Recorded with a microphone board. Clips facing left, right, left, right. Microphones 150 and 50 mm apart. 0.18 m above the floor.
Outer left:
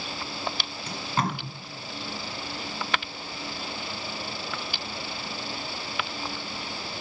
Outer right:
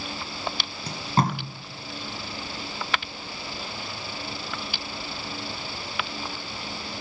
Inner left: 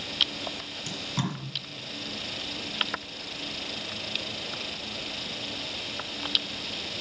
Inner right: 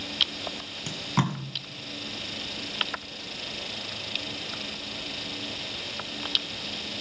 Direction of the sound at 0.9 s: 35° right (ahead or behind).